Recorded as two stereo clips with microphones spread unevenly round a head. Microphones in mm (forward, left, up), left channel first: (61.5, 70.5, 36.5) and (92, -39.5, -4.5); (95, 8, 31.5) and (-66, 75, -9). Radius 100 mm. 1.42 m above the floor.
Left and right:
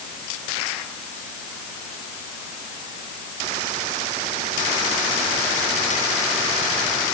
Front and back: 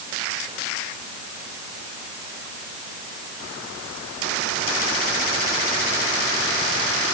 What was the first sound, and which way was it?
Only background noise.